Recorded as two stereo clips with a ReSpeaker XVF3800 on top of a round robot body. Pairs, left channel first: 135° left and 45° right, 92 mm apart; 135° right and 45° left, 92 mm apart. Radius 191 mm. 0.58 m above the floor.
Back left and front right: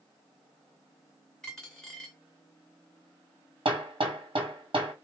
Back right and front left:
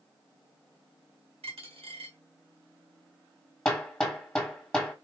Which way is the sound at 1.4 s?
50° left.